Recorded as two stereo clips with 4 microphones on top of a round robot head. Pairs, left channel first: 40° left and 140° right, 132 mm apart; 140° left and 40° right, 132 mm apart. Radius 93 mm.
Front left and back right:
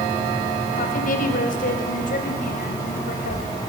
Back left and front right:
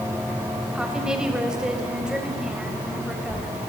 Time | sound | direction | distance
0.7 | a woman speaking | 45° left | 4 m